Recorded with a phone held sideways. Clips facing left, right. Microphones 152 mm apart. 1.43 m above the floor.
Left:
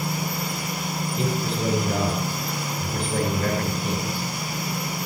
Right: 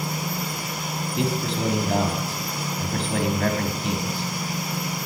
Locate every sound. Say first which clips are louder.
1.2 s a man speaking: right 2 dB; 85° right, 3.5 m